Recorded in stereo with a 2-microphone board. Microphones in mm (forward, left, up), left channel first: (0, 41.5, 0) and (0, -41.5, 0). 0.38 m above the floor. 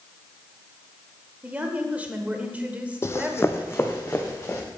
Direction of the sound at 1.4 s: 15° right (ahead or behind).